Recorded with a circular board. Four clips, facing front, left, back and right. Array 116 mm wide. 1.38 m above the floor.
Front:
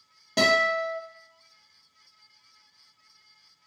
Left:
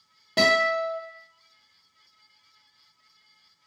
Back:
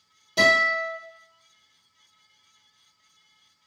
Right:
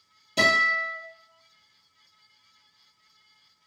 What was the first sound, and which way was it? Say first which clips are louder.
A guitar: left 2 dB, back 1 dB; 55° left.